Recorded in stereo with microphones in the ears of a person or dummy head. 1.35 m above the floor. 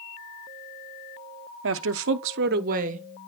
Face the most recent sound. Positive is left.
turn(degrees=-40)  # may be behind; listen again after turning